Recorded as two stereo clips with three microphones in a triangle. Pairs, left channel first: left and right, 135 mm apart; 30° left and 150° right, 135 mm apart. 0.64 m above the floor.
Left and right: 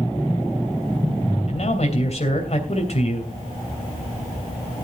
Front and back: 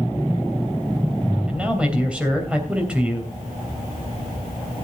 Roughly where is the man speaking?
Behind left.